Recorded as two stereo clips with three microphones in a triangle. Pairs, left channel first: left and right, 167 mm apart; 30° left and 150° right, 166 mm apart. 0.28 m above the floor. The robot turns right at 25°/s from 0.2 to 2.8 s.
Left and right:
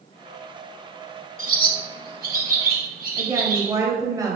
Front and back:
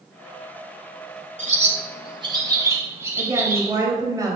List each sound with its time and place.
1.4 s a bird: 110° right, 1.6 m; by 3.7 s 75° right, 1.6 m
3.2 s a woman speaking: 120° right, 1.6 m